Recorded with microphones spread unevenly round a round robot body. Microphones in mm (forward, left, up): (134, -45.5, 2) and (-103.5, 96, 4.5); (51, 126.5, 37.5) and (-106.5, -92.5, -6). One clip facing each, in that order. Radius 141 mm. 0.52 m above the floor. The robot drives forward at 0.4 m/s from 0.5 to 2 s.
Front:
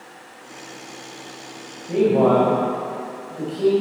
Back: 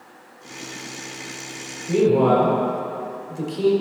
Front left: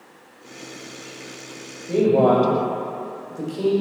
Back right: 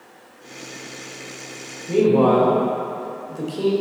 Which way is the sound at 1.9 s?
170° left.